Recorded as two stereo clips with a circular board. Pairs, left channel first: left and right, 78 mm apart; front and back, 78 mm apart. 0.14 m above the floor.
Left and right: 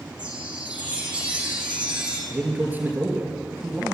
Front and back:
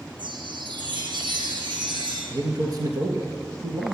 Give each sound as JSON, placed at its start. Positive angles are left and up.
{"t": 0.2, "sound": "a chime", "azimuth_deg": -165, "distance_m": 5.5}
{"t": 2.3, "sound": "a man speaking", "azimuth_deg": -155, "distance_m": 3.5}